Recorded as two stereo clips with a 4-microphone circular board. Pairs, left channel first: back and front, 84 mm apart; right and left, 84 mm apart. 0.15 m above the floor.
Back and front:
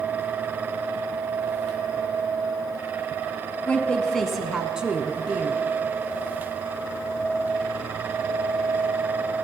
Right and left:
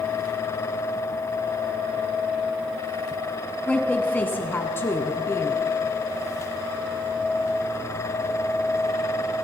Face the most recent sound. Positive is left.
turn(degrees=-55)